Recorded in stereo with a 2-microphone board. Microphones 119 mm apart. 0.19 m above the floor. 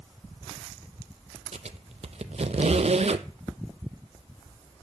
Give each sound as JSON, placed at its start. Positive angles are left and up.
{"t": 1.5, "sound": "a squeak", "side_deg": -60, "distance_m": 0.5}